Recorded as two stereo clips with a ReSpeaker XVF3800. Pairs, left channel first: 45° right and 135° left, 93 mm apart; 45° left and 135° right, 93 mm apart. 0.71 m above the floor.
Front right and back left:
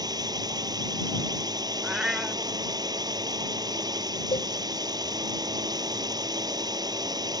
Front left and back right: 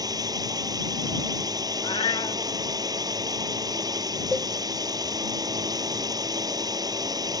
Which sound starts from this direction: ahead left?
A cat meowing, at 1.8 s.